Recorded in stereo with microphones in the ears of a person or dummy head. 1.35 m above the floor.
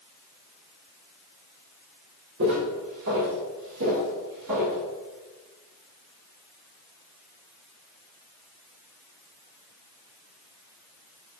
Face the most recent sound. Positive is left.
turn(degrees=-30)  # may be behind; listen again after turning